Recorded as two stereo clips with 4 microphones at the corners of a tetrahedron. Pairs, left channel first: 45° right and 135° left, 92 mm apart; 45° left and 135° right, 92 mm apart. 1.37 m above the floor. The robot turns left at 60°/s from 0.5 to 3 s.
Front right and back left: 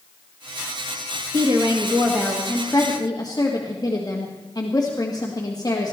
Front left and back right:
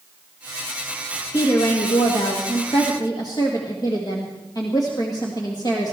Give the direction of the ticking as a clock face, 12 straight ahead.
I don't hear ticking.